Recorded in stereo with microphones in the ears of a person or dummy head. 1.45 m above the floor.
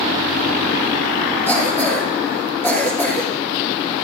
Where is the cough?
10° left (ahead or behind), 4 m.